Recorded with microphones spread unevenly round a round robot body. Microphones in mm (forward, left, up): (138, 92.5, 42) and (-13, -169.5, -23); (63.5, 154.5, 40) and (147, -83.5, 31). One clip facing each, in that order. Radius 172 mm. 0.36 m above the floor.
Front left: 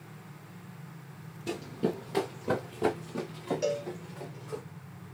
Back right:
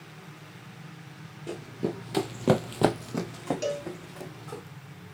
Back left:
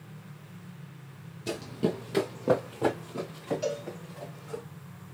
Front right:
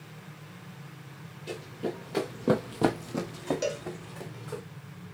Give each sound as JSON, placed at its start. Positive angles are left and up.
{"t": 1.5, "sound": "running footsteps", "azimuth_deg": 135, "distance_m": 0.9}
{"t": 3.6, "sound": "a cowbell", "azimuth_deg": -90, "distance_m": 2.5}